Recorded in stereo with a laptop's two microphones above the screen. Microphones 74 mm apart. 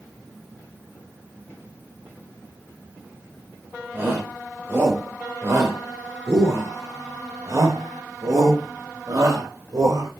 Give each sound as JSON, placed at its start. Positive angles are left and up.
{"t": 3.9, "sound": "a shout", "side_deg": -30, "distance_m": 5.0}